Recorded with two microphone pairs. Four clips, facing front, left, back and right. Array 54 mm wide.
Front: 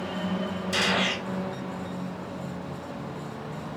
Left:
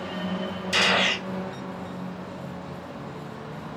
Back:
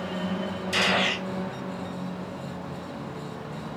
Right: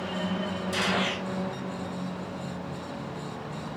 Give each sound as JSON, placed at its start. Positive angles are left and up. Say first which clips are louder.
{"t": 0.7, "sound": "a gunshot", "louder": "left 7 dB, back 2 dB", "azimuth_deg": 100, "distance_m": 0.9}